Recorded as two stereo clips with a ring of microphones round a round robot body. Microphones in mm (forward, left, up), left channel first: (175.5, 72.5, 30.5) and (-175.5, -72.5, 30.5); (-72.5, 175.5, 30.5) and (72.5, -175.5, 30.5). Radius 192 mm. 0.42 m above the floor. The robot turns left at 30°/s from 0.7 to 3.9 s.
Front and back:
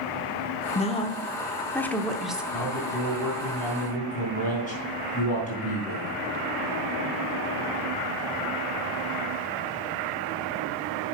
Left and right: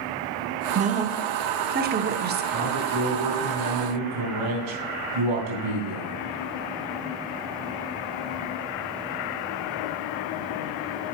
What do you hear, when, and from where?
0.8 s a woman speaking: 25° right, 0.8 m; by 2.4 s 75° right, 0.8 m
2.5 s a man speaking: 10° right, 3.5 m; by 6.2 s 50° right, 3.5 m